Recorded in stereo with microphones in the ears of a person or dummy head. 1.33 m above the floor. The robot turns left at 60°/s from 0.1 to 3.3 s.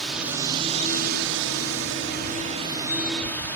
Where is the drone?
Straight ahead; by 3.6 s 165° left.